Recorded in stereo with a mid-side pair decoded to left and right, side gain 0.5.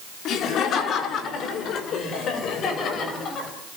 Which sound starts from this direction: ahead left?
Laughter, at 0.2 s.